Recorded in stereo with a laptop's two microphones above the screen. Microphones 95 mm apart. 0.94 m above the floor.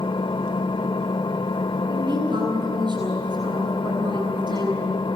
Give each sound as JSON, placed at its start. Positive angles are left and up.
{"t": 0.0, "sound": "an engine running", "side_deg": 55, "distance_m": 1.0}
{"t": 1.9, "sound": "a woman speaking", "side_deg": -50, "distance_m": 9.5}